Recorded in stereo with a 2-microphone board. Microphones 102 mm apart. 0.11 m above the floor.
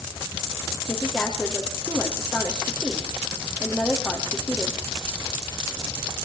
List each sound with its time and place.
0.9 s a woman speaking: 5° right (ahead or behind), 4.5 m